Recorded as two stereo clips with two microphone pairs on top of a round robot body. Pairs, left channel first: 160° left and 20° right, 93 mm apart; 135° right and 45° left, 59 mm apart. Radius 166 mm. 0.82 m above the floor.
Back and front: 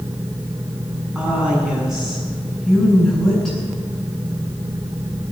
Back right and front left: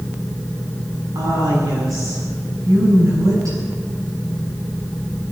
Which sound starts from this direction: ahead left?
A woman speaking, at 1.1 s.